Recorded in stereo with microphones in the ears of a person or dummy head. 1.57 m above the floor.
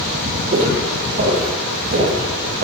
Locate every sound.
0.5 s footsteps: 45° right (ahead or behind), 2.5 m; by 2.6 s 55° right (ahead or behind), 4 m